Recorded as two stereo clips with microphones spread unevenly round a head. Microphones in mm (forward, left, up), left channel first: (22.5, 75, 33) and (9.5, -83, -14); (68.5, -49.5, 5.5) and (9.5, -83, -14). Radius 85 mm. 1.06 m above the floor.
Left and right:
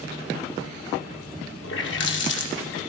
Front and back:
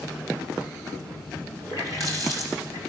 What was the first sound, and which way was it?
A running tap, 95° left.